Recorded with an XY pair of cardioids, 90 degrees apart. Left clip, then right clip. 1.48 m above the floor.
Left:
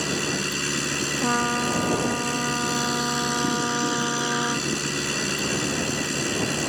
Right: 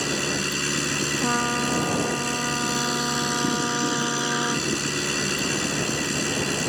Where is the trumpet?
5° left.